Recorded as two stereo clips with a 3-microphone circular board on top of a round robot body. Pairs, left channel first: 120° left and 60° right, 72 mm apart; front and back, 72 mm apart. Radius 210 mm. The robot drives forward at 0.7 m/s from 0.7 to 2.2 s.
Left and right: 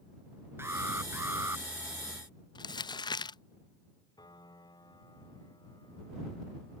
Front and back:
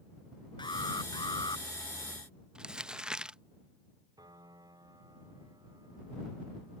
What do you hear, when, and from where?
0.6 s an alarm: 5° right
2.5 s crumpling: 100° left
4.2 s a piano: 145° left